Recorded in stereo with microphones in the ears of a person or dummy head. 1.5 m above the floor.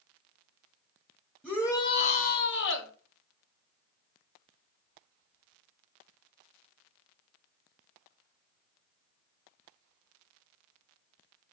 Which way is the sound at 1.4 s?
10° left (ahead or behind).